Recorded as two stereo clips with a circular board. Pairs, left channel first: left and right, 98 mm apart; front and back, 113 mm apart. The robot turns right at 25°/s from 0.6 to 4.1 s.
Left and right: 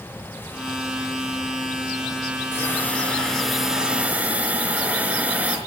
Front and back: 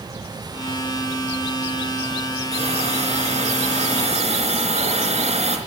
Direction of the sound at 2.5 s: 155° left.